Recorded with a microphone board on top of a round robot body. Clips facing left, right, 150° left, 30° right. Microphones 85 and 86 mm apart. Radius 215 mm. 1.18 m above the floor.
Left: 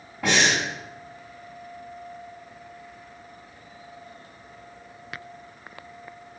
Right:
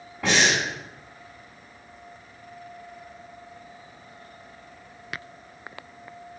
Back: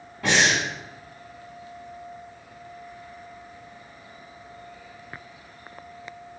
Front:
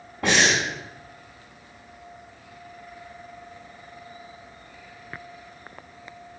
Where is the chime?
I don't hear a chime.